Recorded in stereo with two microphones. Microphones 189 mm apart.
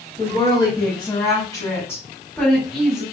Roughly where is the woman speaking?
Left.